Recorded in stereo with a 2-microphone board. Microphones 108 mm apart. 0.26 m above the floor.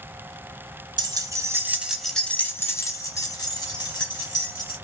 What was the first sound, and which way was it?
Keys jangling, 40° right (ahead or behind).